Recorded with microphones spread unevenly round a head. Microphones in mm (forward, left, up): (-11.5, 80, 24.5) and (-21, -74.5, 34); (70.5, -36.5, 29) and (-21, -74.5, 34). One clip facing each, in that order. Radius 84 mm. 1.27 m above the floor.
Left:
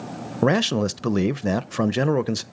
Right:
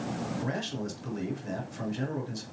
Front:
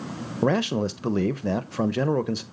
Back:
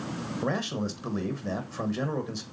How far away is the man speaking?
About 0.7 m.